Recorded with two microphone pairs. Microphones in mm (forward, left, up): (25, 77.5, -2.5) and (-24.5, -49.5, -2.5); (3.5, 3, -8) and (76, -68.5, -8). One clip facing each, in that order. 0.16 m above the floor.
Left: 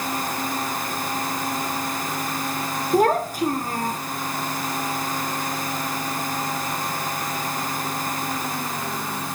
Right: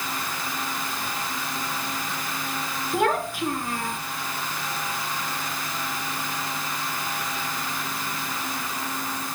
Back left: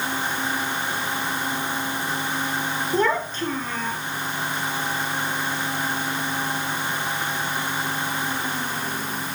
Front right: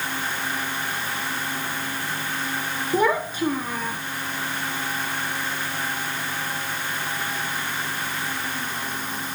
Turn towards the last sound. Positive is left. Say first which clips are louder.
# left 5 dB, front right 2 dB
turn(degrees=30)